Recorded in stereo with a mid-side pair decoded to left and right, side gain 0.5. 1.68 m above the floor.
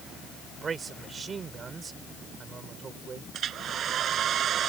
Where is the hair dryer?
60° right.